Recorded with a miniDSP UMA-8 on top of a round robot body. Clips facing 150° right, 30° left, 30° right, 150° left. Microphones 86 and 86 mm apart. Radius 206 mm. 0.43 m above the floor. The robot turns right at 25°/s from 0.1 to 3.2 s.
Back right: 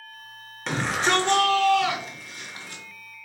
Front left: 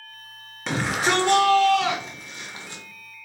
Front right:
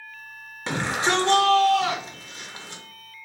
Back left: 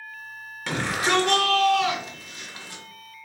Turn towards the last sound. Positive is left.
turn(degrees=10)